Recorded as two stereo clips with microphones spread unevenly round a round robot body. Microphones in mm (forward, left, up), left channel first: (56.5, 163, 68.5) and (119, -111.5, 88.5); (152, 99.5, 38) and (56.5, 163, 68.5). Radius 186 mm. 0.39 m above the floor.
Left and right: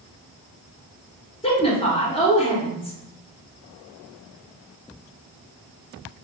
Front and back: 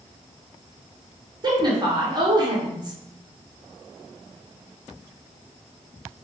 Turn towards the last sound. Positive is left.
turn(degrees=115)